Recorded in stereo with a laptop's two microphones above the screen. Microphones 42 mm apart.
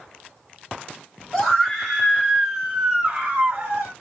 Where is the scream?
5° left (ahead or behind), 1.7 m; by 3.9 s 55° right (ahead or behind), 1.1 m.